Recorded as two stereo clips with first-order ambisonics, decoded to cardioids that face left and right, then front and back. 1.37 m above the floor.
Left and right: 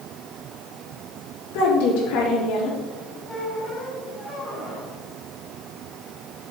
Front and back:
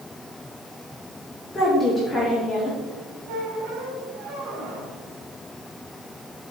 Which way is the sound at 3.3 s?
170° left.